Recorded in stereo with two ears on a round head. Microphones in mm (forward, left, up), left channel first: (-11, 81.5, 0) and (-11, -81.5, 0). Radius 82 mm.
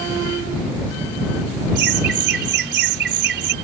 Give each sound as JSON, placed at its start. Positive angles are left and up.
{"t": 1.8, "sound": "laughter", "side_deg": -60}